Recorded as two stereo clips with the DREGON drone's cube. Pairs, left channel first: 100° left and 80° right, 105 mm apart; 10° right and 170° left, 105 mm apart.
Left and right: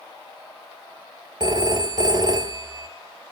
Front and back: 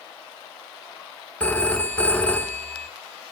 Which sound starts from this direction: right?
A phone ringing, at 1.4 s.